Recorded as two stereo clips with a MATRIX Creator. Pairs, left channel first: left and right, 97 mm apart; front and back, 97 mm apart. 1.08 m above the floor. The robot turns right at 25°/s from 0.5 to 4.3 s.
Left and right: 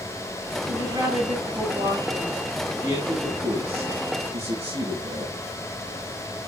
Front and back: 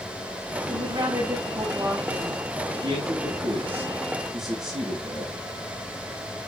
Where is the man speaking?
130° right, 8.5 m; by 5.4 s 90° right, 8.5 m.